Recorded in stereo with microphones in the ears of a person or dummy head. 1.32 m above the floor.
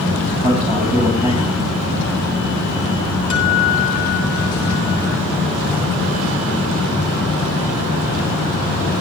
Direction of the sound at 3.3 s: 75° left (ahead or behind).